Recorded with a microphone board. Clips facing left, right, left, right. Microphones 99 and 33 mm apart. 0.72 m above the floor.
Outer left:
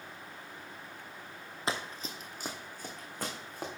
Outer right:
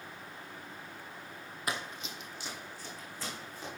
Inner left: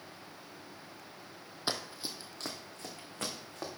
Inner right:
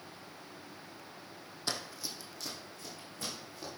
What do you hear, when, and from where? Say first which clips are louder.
1.7 s running footsteps: outer left 2 dB, inner left 2 dB; 30° left (ahead or behind), 1.3 m; by 3.7 s 65° left (ahead or behind), 3.5 m